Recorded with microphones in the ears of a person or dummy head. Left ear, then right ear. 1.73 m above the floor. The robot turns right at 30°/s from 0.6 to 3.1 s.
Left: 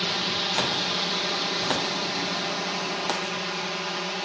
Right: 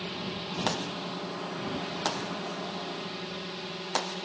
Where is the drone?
55° left; by 4.2 s 130° left.